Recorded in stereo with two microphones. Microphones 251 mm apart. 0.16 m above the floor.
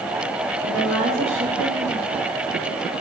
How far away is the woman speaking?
About 4.5 m.